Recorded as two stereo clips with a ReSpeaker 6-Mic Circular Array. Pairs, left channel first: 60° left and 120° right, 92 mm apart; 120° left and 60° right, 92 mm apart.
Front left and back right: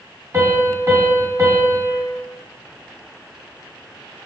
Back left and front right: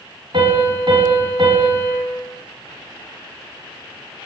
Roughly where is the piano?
Ahead right.